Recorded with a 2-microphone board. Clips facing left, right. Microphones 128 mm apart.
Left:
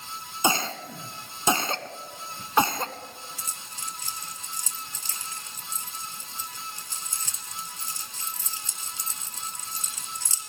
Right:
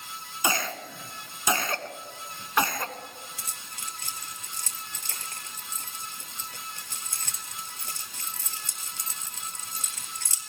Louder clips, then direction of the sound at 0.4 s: Left 3 dB; 25° left (ahead or behind).